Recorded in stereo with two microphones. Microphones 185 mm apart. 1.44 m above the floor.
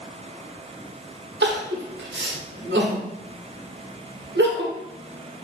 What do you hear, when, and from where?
1.4 s crying: 75° right (ahead or behind), 0.7 m